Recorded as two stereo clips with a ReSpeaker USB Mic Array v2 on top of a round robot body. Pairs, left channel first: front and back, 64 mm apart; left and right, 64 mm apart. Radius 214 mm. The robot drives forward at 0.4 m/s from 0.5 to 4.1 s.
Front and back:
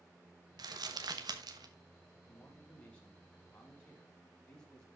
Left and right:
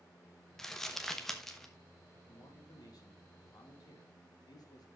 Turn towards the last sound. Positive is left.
turn(degrees=80)